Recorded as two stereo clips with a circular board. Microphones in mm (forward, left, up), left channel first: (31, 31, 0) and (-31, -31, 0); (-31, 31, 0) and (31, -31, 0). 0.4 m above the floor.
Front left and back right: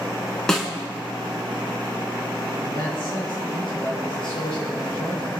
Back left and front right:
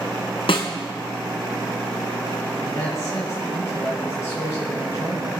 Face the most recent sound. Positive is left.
turn(degrees=75)